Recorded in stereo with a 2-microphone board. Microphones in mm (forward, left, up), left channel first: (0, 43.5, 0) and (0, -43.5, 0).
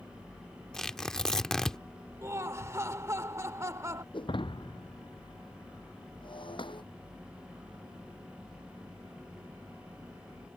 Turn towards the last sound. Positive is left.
turn(degrees=65)  # may be behind; listen again after turning